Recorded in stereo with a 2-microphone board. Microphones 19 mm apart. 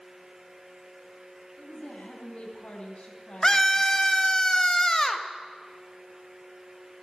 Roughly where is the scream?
Left.